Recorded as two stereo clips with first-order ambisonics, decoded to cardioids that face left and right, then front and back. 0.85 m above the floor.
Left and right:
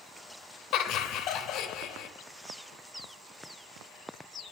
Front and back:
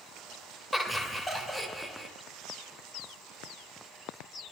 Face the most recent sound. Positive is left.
turn(degrees=85)